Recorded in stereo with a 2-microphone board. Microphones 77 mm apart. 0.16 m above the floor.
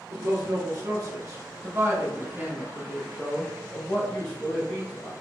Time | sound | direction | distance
0.1 | a woman speaking | 60° right (ahead or behind) | 2.0 m